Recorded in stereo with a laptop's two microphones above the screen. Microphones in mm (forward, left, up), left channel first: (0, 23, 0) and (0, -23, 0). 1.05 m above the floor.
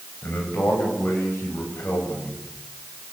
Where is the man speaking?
65° left (ahead or behind), 7.5 m.